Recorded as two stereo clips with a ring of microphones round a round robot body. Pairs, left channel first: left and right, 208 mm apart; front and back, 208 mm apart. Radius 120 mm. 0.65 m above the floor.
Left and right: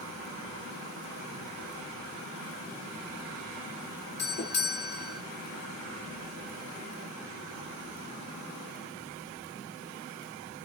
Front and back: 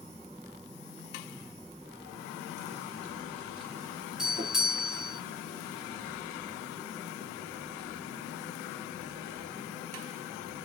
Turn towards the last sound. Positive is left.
turn(degrees=95)